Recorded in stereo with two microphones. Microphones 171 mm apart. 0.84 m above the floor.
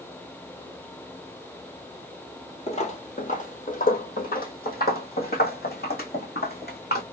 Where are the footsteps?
40° left (ahead or behind), 1.1 m; by 7.0 s 70° left (ahead or behind), 3 m.